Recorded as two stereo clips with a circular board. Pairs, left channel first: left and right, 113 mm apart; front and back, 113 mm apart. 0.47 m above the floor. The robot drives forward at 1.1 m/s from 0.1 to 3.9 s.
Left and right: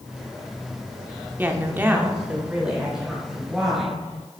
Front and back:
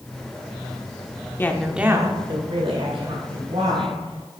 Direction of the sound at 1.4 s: 35° right.